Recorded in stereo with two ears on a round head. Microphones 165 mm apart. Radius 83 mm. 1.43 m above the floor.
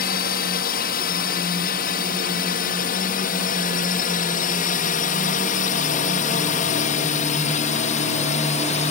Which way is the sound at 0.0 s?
50° left (ahead or behind).